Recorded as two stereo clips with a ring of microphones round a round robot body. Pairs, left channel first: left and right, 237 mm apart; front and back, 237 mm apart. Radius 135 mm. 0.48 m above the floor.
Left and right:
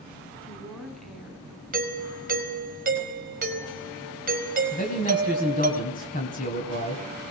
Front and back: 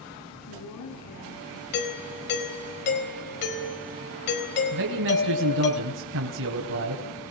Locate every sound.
0.4 s a woman speaking: 5° left, 5.5 m; by 1.6 s 5° right, 4.5 m
1.7 s a doorbell: 45° right, 4 m
4.7 s a man speaking: 150° left, 3 m